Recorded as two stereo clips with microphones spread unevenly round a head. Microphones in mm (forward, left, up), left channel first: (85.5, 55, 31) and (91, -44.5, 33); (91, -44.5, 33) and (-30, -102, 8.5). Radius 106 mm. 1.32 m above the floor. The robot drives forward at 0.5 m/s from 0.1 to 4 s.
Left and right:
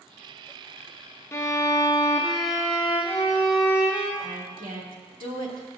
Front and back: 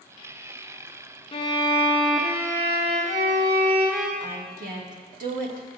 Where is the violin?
35° left, 0.6 m; by 4.1 s 165° left, 1.1 m.